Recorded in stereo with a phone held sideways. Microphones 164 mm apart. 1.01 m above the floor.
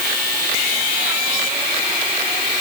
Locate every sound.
Only background noise.